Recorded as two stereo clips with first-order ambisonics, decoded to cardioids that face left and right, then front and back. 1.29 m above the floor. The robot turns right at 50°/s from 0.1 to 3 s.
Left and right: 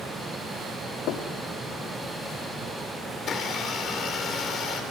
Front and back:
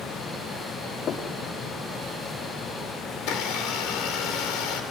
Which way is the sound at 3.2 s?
30° left.